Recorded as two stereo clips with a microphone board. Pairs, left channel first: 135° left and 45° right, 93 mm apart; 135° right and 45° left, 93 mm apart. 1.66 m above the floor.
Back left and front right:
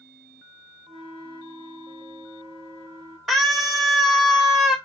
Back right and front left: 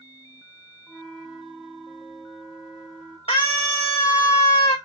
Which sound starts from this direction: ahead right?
A flute, at 0.9 s.